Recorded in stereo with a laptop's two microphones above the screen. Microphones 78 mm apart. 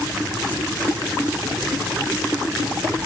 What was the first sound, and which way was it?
Only background noise.